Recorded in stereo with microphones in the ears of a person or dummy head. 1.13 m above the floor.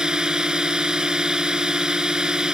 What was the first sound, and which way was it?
A drone, 5° right (ahead or behind).